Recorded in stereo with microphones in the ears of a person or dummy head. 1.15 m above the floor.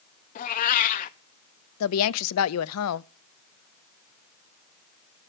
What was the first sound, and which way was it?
A cat meowing, 40° left (ahead or behind).